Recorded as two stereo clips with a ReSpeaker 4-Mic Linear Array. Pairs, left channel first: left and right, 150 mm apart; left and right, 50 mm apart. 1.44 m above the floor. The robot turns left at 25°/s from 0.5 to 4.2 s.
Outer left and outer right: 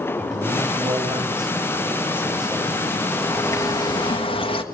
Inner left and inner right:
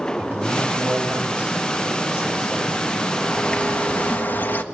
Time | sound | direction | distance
0.2 | a man speaking | 130° right | 9 m
3.1 | a bird | 10° left (ahead or behind) | 1.6 m